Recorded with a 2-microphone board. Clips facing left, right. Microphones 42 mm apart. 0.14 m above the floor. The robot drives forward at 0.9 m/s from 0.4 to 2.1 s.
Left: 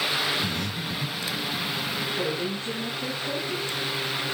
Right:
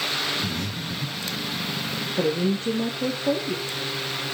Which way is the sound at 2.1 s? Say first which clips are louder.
Right 5 dB; 65° right (ahead or behind).